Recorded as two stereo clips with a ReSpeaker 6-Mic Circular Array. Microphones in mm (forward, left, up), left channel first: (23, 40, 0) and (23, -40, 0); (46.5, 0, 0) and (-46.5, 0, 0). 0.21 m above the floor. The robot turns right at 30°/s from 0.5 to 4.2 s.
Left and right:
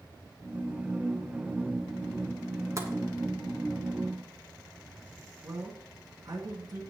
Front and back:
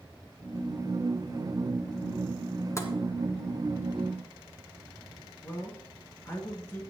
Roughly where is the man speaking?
Ahead right.